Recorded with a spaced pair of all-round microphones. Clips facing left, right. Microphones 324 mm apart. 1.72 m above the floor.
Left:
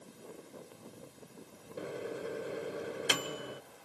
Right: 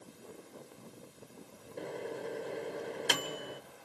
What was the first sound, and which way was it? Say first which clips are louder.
A microwave: even; 10° left (ahead or behind).